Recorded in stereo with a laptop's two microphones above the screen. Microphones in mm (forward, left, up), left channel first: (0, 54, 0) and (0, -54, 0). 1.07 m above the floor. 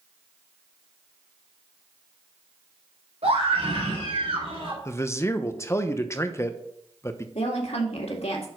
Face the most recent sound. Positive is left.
turn(degrees=70)  # may be behind; listen again after turning